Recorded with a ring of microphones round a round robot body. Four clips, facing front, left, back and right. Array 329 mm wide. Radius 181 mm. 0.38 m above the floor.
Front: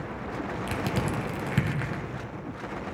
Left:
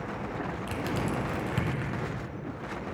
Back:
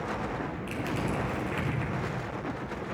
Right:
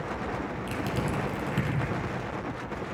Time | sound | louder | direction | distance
0.7 | crushing | even, front 2 dB | straight ahead | 2 m